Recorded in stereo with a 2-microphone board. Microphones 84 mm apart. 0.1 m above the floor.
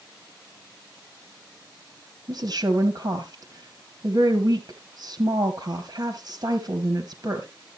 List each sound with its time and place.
2.3 s a woman speaking: 45° right (ahead or behind), 2 m